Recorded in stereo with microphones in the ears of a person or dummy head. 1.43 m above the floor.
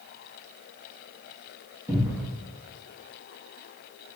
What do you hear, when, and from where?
1.9 s a cupboard door: 10° right (ahead or behind), 0.6 m